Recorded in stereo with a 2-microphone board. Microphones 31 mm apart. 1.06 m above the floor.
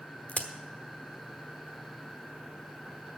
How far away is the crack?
About 1.0 m.